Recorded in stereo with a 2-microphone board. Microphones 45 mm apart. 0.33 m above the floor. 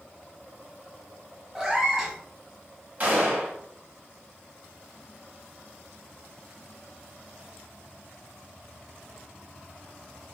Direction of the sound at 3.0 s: 40° right (ahead or behind).